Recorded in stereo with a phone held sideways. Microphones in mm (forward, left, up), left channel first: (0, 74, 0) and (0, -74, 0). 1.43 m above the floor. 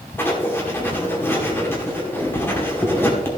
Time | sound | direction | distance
0.2 | writing | 15° left (ahead or behind) | 2 m